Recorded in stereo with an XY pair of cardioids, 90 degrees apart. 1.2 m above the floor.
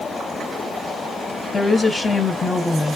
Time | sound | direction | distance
1.5 | a woman speaking | 30° left | 1.0 m